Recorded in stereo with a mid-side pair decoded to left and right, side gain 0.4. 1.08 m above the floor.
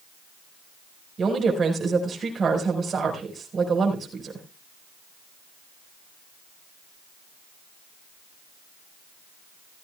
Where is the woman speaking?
45° right, 5 m.